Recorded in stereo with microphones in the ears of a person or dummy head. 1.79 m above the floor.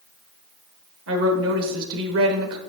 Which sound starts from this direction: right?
A woman speaking, at 1.1 s.